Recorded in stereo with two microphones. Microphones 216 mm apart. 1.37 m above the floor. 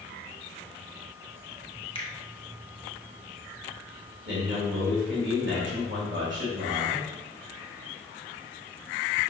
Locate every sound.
1.9 s a finger snap: 25° left (ahead or behind), 0.8 m
4.2 s a man speaking: 55° right (ahead or behind), 1.5 m